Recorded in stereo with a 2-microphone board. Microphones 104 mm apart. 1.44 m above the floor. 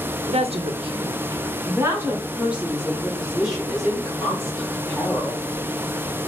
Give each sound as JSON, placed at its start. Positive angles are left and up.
{"t": 0.3, "sound": "a woman speaking", "side_deg": -85, "distance_m": 0.8}